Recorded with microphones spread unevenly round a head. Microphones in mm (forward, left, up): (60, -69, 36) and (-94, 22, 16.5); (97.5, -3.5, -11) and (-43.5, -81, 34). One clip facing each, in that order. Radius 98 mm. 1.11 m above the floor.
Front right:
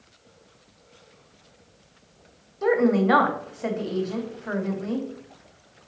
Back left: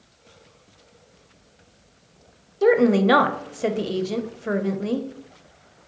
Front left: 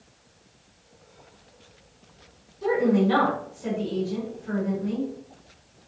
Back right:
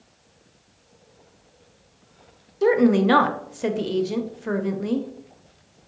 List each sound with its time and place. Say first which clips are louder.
2.6 s a woman speaking: back left 3 dB, back right 4 dB; 170° right, 0.7 m